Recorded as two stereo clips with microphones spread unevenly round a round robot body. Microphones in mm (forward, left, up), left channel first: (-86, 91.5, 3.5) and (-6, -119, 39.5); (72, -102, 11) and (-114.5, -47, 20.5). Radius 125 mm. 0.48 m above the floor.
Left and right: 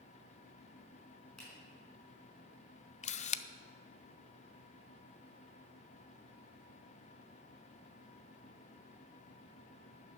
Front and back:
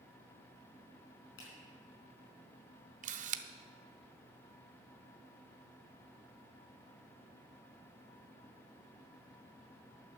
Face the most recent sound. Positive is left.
turn(degrees=130)